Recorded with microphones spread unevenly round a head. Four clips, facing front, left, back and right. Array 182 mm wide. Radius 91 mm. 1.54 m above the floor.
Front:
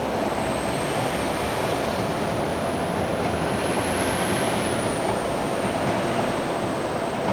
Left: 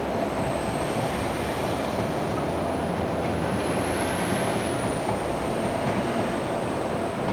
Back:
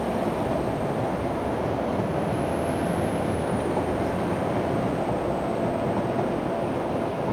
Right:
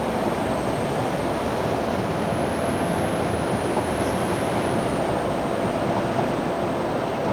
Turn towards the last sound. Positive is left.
No sound to turn to.